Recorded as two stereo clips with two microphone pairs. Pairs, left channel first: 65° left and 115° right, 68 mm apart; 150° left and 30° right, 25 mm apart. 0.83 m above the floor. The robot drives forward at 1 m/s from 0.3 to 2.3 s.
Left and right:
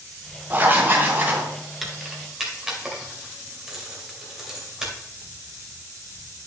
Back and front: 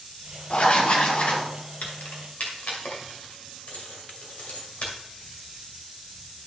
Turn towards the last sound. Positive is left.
turn(degrees=165)